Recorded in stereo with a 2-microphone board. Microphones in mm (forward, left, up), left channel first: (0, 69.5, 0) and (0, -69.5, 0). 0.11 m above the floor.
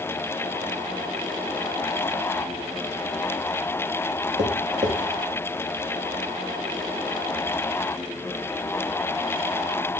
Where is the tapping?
60° right (ahead or behind), 1.8 m.